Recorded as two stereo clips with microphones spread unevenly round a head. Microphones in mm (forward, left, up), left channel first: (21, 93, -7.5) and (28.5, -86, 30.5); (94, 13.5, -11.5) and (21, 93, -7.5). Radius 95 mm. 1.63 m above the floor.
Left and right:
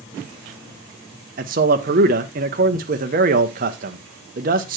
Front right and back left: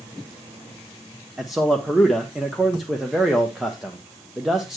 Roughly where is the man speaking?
Behind right.